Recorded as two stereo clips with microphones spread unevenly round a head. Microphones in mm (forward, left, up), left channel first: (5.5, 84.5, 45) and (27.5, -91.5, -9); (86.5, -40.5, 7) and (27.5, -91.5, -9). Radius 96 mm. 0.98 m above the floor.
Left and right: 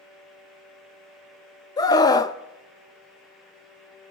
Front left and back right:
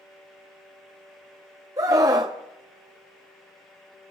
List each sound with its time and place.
1.8 s a scream: 175° left, 0.8 m